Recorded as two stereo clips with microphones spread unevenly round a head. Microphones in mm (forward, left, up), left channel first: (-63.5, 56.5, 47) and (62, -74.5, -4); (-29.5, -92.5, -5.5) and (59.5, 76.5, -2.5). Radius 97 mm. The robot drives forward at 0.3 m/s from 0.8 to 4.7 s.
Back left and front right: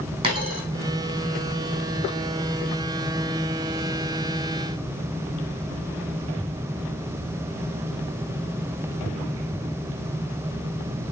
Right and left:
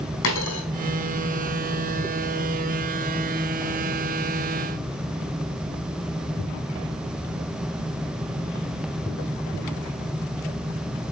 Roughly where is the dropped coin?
Behind right.